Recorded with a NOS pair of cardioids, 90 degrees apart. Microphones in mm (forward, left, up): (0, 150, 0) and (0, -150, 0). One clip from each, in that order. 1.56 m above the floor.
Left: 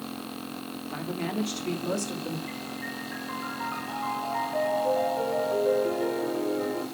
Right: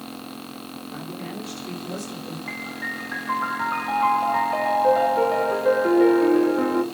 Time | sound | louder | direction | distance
0.9 | a woman speaking | left 4 dB | 50° left | 3.5 m
2.5 | a piano | right 6 dB | 60° right | 1.4 m